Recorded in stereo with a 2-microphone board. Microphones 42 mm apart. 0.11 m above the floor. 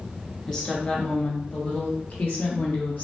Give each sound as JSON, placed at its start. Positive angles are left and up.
{"t": 0.5, "sound": "a woman speaking", "side_deg": 20, "distance_m": 1.5}